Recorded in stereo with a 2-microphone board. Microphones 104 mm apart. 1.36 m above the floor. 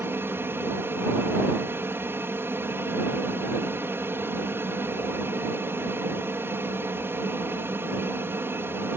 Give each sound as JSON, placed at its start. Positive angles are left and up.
{"t": 0.0, "sound": "an aircraft", "side_deg": -25}